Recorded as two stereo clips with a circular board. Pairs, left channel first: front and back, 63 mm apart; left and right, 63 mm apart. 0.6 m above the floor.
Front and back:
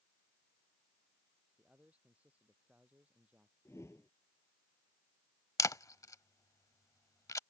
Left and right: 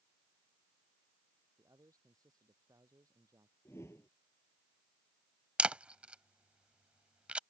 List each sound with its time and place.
1.6 s a man speaking: 110° right
3.6 s a whoosh: 45° left
5.6 s a camera shutter: 20° right